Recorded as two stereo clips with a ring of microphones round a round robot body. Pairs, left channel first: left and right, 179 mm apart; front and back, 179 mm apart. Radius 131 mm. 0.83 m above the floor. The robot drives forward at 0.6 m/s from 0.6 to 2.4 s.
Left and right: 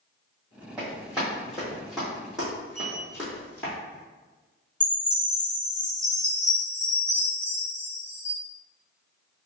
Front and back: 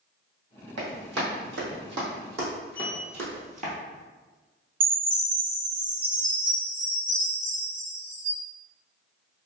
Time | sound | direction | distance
0.8 | running footsteps | 175° right | 1.8 m
2.8 | a sliding door | 20° left | 0.8 m
4.8 | a chime | 145° left | 1.7 m